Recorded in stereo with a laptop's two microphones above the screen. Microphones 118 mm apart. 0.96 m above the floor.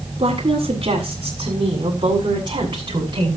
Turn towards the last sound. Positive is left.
turn(degrees=-40)  # may be behind; listen again after turning